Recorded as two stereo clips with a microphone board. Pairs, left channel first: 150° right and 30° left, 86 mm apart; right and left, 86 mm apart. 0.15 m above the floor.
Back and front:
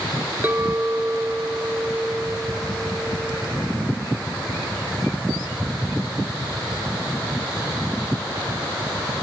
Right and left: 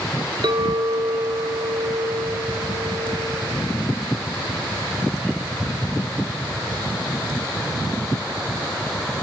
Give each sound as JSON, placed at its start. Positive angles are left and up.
{"t": 0.4, "sound": "a clink", "azimuth_deg": 90, "distance_m": 1.4}